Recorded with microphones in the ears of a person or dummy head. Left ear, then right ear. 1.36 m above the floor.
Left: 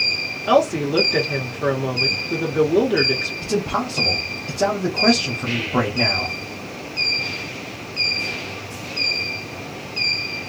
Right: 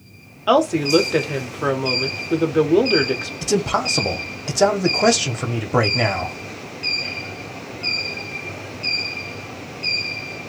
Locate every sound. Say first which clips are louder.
0.5 s a woman speaking: right 2 dB; 25° right (ahead or behind), 0.8 m
3.4 s a man speaking: right 3 dB; 75° right (ahead or behind), 0.7 m